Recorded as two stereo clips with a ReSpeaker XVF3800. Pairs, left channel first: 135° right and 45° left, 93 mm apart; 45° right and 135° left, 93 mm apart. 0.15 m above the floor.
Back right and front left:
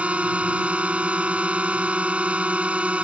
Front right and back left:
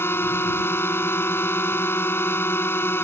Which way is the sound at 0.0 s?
15° right.